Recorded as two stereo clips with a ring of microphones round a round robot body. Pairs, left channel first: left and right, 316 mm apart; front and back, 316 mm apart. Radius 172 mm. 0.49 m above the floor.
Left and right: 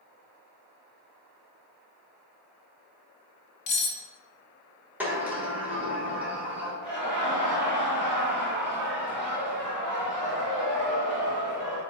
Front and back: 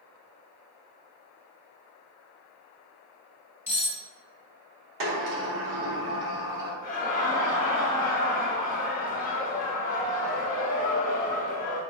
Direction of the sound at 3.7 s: 100° left.